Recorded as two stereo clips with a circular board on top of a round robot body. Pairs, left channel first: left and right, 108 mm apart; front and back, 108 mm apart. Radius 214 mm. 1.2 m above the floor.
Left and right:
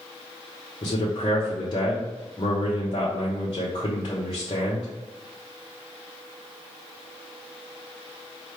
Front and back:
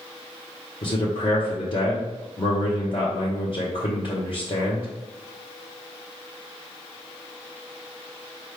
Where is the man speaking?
40° left, 0.9 m.